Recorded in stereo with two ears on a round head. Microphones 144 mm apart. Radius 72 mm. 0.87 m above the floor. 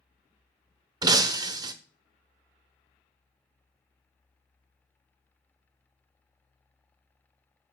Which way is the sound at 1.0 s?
25° right (ahead or behind).